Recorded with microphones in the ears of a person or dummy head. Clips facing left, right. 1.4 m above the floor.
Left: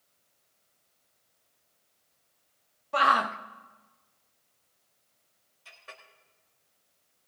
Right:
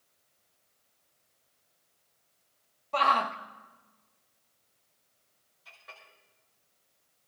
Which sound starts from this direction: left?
A clink, at 5.7 s.